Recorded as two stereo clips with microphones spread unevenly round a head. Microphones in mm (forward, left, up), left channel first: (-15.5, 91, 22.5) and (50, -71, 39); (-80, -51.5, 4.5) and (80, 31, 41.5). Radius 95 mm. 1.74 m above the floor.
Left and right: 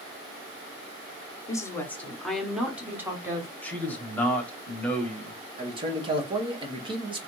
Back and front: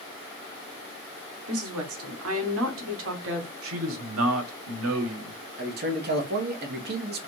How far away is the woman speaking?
About 1.4 m.